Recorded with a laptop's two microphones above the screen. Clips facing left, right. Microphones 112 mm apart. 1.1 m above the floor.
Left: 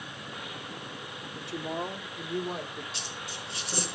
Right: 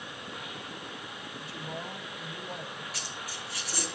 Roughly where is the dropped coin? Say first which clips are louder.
Even; left.